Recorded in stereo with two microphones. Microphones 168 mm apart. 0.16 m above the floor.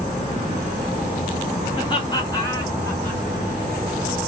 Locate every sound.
1.7 s laughter: 30° left (ahead or behind), 1.9 m; by 3.2 s 10° left (ahead or behind), 1.6 m